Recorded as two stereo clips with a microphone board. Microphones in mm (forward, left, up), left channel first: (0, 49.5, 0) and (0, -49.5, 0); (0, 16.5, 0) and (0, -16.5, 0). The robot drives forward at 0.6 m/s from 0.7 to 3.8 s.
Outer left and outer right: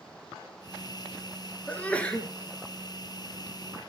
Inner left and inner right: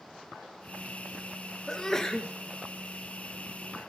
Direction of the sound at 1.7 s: 15° left (ahead or behind).